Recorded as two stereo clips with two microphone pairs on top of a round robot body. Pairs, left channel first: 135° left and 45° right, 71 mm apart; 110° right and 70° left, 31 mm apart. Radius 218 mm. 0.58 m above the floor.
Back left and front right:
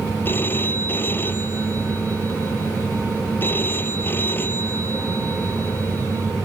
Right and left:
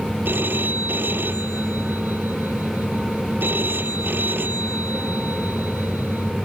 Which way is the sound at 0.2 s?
75° left.